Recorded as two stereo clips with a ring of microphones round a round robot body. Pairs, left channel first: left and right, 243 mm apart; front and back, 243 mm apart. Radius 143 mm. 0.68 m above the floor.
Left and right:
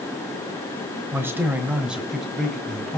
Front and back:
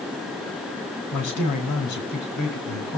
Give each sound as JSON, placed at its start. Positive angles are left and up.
{"t": 1.1, "sound": "a man speaking", "azimuth_deg": -10, "distance_m": 4.5}